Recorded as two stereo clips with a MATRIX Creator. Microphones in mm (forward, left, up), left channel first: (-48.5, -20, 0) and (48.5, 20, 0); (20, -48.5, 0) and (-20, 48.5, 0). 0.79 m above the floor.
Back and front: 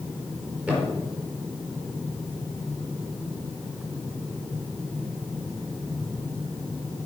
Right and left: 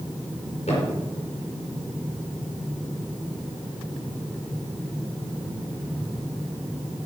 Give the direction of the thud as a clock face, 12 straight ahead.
2 o'clock.